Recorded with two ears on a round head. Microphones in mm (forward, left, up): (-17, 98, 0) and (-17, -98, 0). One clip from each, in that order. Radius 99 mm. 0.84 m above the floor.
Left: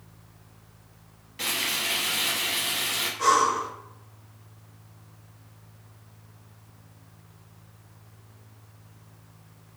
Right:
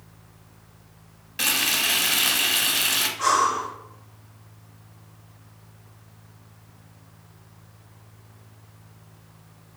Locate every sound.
1.4 s frying: 35° right (ahead or behind), 0.8 m
3.2 s breathing: centre (ahead or behind), 1.2 m